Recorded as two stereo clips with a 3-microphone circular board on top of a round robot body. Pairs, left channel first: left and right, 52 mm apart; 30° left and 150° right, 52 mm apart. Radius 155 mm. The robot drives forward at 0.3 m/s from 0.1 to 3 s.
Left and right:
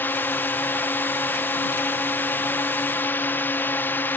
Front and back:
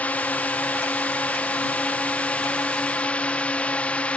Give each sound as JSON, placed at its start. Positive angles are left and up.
{"t": 0.0, "sound": "a drone", "azimuth_deg": 75}